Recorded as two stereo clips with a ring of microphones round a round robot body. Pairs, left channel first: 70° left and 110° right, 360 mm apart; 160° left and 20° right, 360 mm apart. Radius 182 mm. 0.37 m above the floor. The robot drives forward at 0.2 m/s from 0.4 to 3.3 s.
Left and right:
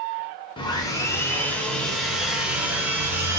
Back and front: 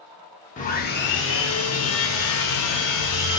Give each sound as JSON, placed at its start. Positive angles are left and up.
{"t": 0.6, "sound": "sawing", "azimuth_deg": 125, "distance_m": 0.6}